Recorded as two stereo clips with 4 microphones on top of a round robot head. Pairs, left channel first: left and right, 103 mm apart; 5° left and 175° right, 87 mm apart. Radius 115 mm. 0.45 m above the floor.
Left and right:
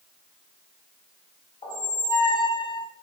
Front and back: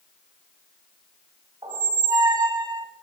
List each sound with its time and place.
1.6 s a squeak: 145° left, 1.4 m